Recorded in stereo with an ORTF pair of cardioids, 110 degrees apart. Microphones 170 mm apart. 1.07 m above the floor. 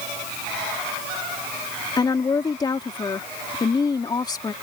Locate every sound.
2.0 s a woman speaking: 25° left